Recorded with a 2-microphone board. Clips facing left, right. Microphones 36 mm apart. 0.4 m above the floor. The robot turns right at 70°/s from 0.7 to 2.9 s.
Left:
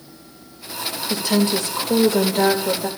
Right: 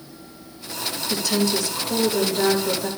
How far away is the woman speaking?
About 1.2 m.